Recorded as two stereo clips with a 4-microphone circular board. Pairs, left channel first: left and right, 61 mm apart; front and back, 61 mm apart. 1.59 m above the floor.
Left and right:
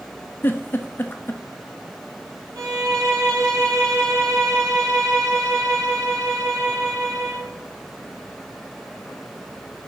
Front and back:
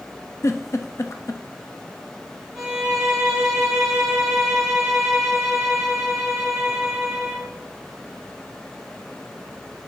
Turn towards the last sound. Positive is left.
turn(degrees=-90)